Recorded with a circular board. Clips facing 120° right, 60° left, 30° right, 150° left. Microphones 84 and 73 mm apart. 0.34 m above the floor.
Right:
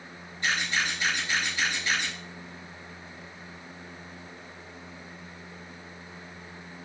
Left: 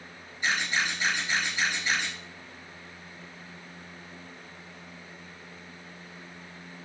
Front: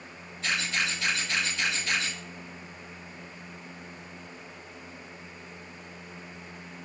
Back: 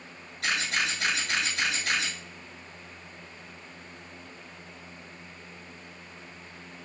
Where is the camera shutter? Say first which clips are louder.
Even, back 1 dB; 135° left, 5 m.